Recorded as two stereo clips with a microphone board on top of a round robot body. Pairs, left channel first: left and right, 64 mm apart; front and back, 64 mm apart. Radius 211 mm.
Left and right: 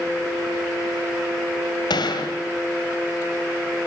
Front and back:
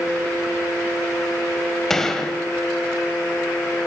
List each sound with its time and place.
1.9 s a gunshot: 85° left, 2 m